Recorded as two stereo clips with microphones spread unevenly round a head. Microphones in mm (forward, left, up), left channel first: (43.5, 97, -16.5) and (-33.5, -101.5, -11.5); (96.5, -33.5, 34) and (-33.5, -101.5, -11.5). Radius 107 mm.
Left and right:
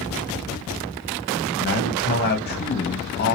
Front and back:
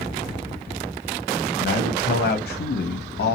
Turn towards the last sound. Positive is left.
turn(degrees=25)